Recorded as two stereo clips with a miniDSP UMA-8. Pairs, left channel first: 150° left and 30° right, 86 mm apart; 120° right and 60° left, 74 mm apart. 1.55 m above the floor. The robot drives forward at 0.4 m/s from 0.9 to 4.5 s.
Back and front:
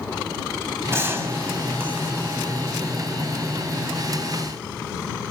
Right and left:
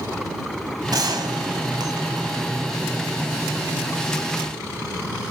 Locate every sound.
0.9 s a gunshot: 30° left, 1.9 m; by 2.3 s 40° left, 1.5 m